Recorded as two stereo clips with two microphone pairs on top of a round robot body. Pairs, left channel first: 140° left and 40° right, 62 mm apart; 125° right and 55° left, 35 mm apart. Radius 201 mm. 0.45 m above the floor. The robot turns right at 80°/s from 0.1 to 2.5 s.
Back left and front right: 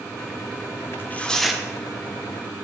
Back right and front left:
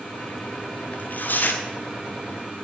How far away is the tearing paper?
About 2 m.